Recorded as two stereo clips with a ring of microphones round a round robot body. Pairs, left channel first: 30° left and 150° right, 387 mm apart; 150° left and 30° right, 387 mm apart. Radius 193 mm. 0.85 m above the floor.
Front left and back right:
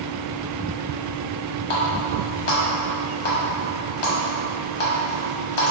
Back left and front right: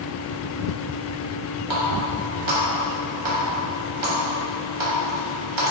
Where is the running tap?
15° left, 1.2 m.